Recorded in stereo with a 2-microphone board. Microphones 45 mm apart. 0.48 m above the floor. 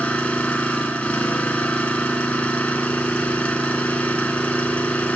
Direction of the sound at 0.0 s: 25° left (ahead or behind).